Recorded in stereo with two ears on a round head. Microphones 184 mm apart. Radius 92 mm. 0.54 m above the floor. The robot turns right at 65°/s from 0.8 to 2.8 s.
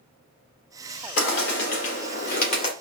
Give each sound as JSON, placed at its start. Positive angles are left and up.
{"t": 1.2, "sound": "a bird", "azimuth_deg": 50, "distance_m": 1.8}